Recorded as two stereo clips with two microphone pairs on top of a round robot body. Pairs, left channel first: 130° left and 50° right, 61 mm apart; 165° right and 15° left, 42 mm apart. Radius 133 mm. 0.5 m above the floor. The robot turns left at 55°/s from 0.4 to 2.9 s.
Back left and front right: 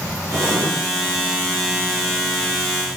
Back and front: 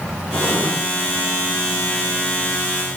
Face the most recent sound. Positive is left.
turn(degrees=-145)